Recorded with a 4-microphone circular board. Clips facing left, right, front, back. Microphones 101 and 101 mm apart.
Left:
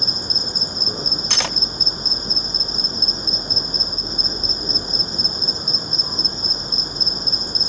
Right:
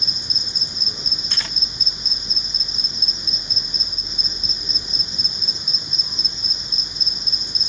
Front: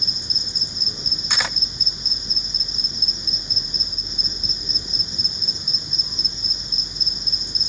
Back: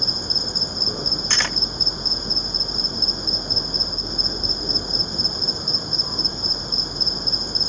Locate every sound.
0.0 s an insect: 140° left
1.3 s cutlery clinking: 85° left